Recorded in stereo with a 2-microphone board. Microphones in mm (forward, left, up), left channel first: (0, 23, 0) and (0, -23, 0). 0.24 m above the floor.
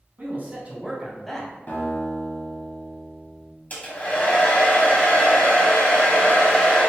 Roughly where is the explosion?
I don't hear an explosion.